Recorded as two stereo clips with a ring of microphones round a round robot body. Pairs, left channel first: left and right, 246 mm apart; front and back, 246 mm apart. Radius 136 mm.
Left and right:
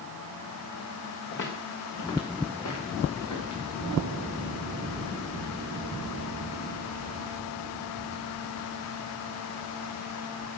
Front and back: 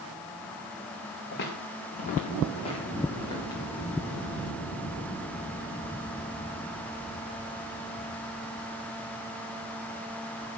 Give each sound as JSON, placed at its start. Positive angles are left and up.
{"t": 1.3, "sound": "footsteps", "azimuth_deg": 45, "distance_m": 2.5}